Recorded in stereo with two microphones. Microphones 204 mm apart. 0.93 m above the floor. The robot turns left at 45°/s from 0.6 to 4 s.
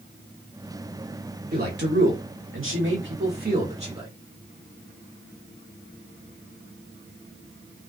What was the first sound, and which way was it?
A man speaking, 45° right (ahead or behind).